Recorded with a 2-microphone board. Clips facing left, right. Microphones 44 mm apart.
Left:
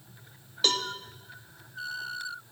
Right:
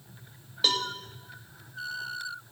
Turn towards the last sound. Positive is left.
turn(degrees=-5)  # may be behind; listen again after turning